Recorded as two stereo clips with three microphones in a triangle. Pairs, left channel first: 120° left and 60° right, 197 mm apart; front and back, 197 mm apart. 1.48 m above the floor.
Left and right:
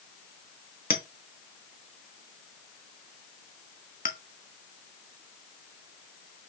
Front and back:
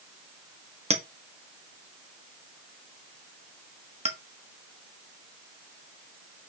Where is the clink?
135° left, 1.2 m.